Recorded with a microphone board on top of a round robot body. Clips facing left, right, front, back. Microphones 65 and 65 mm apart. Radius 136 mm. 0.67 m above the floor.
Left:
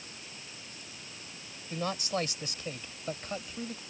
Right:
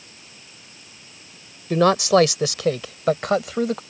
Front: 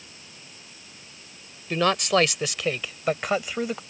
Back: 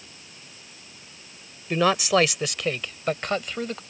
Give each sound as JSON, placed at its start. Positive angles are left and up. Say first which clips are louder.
{"t": 1.7, "sound": "a man speaking", "louder": "right 17 dB, back 1 dB", "azimuth_deg": -95}